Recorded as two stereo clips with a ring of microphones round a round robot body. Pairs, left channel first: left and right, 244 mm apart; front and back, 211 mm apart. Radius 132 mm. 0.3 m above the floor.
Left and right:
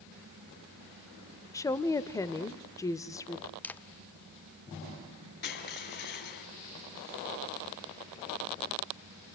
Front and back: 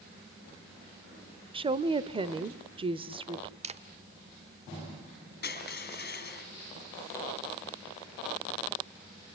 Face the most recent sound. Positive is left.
turn(degrees=40)